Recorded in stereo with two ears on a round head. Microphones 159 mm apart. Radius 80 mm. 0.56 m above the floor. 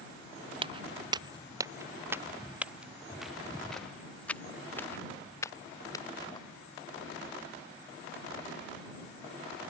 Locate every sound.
0.6 s footsteps: 30° right (ahead or behind); by 6.4 s 20° left (ahead or behind)